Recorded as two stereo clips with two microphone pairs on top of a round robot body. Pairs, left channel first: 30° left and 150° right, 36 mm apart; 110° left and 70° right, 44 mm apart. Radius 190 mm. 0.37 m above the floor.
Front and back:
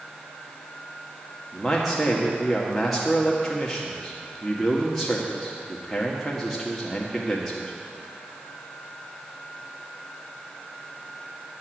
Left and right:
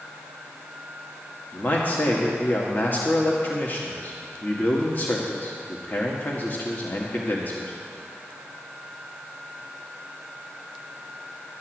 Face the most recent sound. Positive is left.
turn(degrees=110)